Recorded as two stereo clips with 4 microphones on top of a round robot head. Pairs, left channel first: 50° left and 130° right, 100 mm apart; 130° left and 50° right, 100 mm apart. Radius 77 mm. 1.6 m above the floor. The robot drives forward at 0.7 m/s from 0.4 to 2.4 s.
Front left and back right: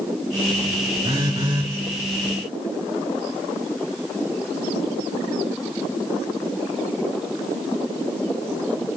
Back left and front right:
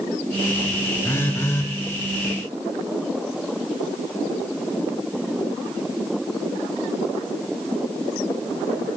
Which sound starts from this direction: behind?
A phone buzzing, at 1.0 s.